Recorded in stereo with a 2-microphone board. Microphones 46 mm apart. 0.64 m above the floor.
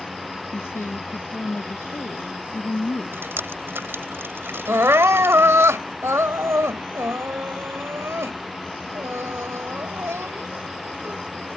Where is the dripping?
55° right (ahead or behind).